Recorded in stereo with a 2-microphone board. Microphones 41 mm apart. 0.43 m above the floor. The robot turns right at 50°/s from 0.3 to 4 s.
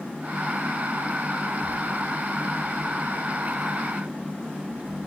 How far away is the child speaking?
About 3 m.